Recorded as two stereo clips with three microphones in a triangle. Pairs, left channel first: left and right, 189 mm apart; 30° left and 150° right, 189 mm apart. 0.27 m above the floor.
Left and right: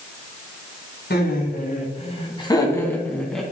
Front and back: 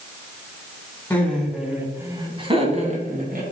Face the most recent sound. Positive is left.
turn(degrees=180)